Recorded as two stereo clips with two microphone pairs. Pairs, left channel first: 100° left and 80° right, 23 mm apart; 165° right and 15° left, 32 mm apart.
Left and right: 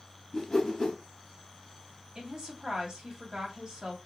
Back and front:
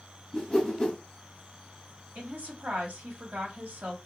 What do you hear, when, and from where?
0.3 s a whoosh: 110° left, 1.1 m
2.1 s a woman speaking: 15° right, 1.2 m